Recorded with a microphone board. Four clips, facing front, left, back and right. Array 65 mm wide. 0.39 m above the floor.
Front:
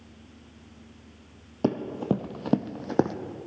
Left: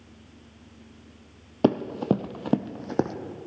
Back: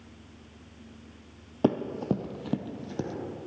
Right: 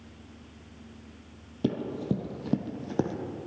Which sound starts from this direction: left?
Running footsteps, at 1.6 s.